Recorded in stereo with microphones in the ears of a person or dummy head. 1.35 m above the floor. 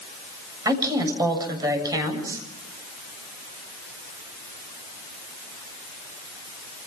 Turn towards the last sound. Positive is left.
turn(degrees=-20)  # may be behind; listen again after turning